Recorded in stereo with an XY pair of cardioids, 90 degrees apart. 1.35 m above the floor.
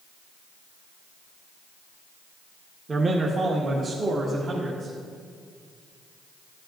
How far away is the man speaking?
About 1.0 m.